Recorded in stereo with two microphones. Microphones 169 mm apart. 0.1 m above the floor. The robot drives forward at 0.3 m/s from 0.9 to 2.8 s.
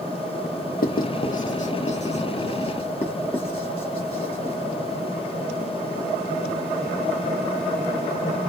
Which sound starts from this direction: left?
Writing, at 0.8 s.